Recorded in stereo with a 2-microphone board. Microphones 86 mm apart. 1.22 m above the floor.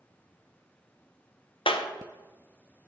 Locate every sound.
1.7 s a clap: 80° left, 0.5 m